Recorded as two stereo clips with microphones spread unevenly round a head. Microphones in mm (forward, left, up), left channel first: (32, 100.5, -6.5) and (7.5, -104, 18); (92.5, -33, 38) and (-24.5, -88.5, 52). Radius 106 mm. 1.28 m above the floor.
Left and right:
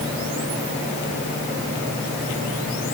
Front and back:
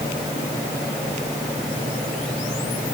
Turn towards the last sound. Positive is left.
No sound to turn to.